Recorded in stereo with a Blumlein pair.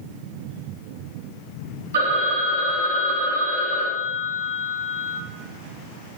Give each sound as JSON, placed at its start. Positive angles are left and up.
{"t": 1.9, "sound": "a phone ringing", "azimuth_deg": -60, "distance_m": 1.1}